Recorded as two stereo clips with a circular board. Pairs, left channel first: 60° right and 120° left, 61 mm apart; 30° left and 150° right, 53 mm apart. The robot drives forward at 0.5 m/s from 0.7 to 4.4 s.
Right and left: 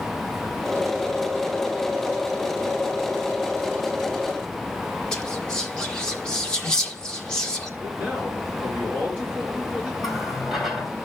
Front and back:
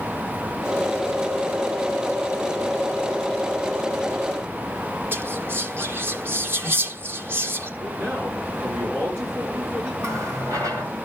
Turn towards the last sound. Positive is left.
turn(degrees=-155)